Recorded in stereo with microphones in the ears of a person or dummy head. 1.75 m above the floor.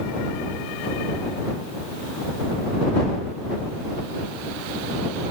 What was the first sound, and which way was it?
Only background noise.